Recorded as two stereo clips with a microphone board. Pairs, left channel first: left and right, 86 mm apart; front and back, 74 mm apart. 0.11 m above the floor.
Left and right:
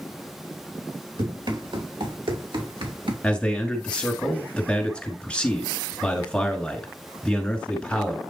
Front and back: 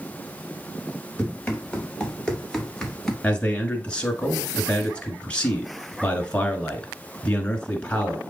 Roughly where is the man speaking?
Ahead left.